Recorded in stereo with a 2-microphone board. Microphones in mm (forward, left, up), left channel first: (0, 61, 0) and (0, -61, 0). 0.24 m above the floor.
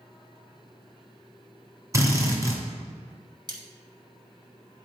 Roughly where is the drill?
Right.